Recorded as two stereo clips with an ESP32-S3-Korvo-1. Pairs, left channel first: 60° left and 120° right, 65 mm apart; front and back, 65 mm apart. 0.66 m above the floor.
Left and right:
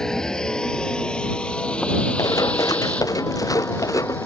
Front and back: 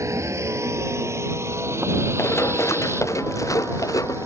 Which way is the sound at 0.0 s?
140° left.